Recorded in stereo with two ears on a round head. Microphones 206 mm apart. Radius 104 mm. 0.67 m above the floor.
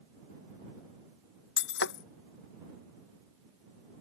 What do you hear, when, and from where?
1.6 s breaking glass: 60° left (ahead or behind)